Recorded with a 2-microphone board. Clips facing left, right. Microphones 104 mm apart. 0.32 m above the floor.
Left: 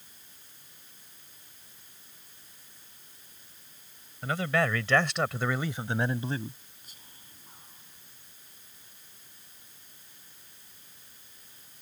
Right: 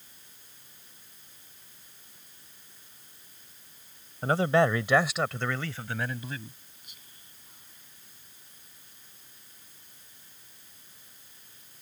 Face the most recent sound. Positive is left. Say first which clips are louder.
# left 3 dB
turn(degrees=40)  # may be behind; listen again after turning